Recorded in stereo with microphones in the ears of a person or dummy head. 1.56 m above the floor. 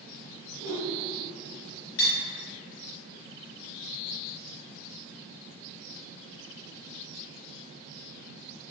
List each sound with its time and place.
0.6 s a whoosh: 60° right (ahead or behind), 0.8 m
2.0 s cutlery clinking: 60° left (ahead or behind), 1.2 m